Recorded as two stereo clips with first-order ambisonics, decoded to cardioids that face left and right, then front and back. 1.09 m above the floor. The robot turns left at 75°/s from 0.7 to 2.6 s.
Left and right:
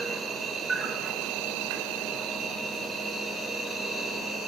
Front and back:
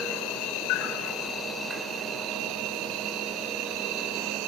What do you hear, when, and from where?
0.0 s an insect: 15° right, 4.5 m; by 4.5 s 155° right, 4.5 m